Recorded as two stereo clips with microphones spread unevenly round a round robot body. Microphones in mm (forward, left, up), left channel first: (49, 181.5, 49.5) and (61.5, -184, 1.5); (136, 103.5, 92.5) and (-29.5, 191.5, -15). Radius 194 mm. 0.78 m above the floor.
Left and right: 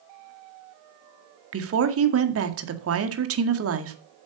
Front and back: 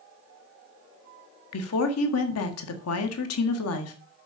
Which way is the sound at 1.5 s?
45° right.